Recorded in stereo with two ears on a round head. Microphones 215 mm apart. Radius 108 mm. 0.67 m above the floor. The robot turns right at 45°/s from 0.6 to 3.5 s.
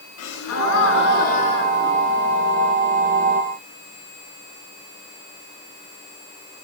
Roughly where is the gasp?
Left.